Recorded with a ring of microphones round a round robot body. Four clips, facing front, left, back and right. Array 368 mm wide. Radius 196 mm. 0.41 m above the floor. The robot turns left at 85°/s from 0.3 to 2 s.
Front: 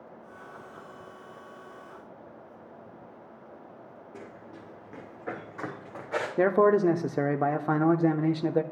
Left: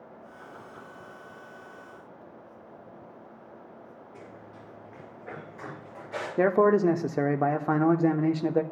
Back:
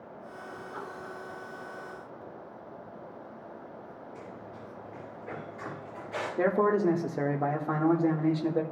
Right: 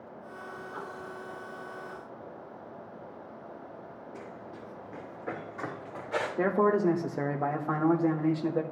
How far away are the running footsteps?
About 3.5 m.